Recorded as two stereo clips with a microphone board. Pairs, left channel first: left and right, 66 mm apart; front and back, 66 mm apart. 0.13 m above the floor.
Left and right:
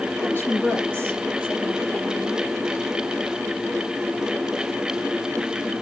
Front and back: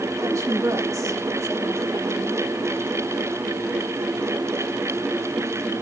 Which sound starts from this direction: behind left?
A woman speaking, at 0.2 s.